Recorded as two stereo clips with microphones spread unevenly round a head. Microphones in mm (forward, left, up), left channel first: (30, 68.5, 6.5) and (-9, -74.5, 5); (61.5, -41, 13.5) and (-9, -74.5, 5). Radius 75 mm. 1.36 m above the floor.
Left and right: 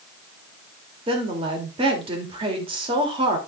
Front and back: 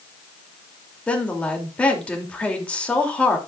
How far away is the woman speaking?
About 3 m.